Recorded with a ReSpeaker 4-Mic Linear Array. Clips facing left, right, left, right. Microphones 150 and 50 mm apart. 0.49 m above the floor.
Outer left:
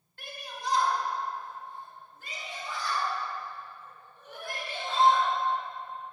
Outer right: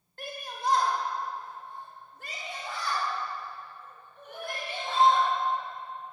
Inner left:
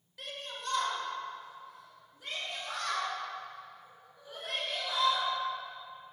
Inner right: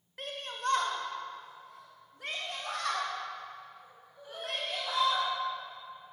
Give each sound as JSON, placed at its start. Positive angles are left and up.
{"t": 0.2, "sound": "a shout", "side_deg": -40, "distance_m": 1.9}